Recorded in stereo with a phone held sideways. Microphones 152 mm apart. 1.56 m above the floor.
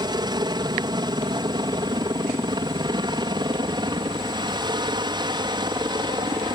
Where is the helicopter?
30° right (ahead or behind).